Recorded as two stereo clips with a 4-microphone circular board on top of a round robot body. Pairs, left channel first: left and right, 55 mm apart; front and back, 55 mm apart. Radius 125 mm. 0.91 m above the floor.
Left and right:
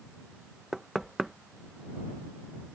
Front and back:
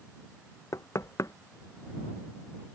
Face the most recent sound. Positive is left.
turn(degrees=-5)